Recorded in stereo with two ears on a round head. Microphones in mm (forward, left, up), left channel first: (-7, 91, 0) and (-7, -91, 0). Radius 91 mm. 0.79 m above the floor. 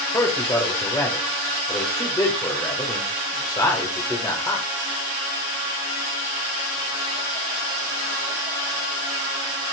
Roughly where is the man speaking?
Centre.